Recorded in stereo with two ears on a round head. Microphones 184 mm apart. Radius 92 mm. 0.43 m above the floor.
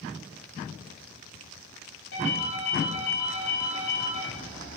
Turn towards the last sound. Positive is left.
turn(degrees=85)